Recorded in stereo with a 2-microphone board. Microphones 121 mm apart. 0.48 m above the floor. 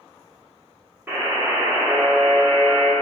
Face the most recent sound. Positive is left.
turn(degrees=-15)  # may be behind; listen again after turning